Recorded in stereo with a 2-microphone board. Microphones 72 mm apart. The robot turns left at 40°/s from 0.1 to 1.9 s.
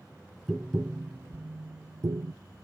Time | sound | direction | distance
0.5 | tapping | centre (ahead or behind) | 0.5 m